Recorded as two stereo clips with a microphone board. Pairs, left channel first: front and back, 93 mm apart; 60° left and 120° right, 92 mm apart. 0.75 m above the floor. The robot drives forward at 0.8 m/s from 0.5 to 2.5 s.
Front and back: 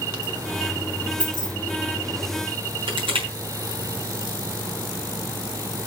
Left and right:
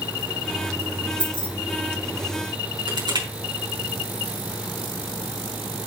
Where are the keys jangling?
145° right, 3 m; by 1.5 s 150° right, 3 m.